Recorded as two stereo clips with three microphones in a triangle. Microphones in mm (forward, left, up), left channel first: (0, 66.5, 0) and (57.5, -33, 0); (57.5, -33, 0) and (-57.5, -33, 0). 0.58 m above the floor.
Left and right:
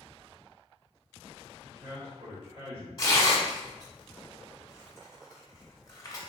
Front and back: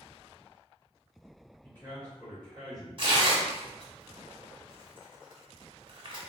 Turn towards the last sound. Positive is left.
turn(degrees=165)